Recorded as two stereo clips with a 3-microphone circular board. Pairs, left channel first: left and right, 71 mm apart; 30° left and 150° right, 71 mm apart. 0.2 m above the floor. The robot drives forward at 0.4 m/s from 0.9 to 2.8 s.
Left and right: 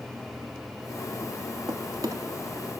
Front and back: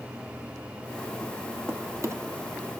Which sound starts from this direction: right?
A drawer, at 1.7 s.